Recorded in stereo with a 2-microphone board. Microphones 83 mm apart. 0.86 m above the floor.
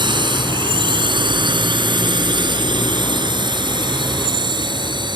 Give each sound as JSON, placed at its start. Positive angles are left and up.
{"t": 0.0, "sound": "a drone", "side_deg": -65}